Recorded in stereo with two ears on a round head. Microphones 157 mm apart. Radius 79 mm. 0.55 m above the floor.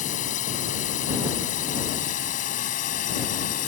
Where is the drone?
45° left (ahead or behind); by 3.7 s 50° left (ahead or behind).